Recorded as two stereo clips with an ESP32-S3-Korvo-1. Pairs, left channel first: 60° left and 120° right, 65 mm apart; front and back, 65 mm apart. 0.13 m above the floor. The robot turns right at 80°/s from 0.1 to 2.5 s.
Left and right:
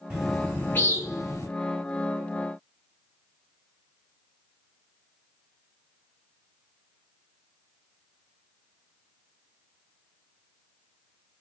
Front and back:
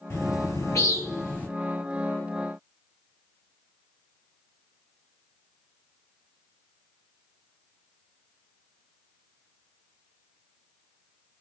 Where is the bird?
50° right, 2.5 m; by 1.5 s 65° left, 2.5 m.